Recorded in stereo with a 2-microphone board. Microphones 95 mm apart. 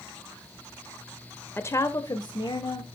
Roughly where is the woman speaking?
Left.